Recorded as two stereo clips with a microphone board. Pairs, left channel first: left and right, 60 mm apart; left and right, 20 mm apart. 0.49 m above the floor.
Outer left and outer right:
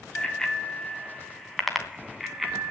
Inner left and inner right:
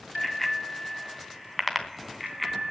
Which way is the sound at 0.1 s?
15° left (ahead or behind).